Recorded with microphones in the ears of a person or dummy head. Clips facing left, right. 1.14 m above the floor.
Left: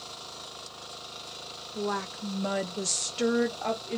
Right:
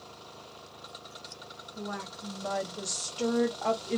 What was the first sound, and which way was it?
A woman speaking, 70° left (ahead or behind).